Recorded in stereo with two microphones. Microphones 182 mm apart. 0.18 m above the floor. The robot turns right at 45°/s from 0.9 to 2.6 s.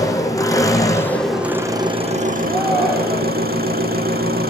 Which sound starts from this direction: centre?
A shout, at 2.4 s.